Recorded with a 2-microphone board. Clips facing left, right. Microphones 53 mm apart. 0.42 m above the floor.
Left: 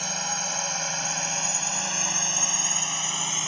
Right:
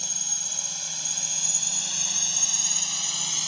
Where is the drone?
60° left (ahead or behind); by 3.5 s 30° left (ahead or behind).